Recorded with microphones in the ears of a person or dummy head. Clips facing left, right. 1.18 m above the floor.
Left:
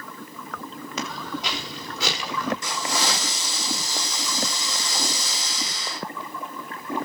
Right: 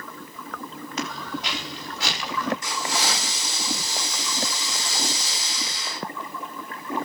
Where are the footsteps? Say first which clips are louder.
Even; 80° left, 6.5 m.